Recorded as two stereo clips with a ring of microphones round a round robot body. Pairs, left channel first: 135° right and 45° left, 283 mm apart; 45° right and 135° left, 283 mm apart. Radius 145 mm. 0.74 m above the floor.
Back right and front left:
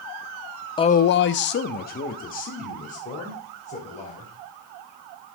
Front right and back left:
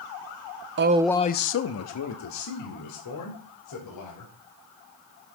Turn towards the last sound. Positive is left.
turn(degrees=-70)